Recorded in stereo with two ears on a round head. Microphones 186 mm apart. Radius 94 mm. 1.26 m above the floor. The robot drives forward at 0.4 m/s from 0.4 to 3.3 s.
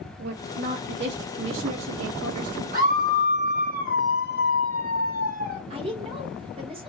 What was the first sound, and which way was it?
A woman speaking, 45° right (ahead or behind).